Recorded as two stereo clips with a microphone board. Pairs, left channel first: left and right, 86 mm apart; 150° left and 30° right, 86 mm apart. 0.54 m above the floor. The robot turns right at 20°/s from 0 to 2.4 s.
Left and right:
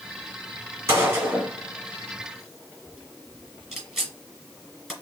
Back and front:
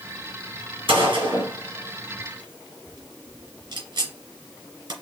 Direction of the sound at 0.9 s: 35° right.